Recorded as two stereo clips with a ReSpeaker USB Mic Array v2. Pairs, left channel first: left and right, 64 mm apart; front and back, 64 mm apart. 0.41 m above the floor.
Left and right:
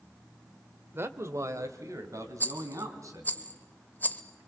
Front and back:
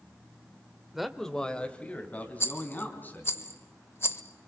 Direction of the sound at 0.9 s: 95° right.